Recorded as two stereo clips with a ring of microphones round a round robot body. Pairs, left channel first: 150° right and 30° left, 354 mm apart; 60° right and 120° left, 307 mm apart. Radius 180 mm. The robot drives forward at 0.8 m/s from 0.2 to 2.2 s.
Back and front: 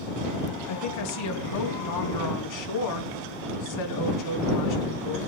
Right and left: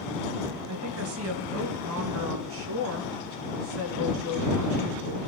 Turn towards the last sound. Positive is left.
turn(degrees=170)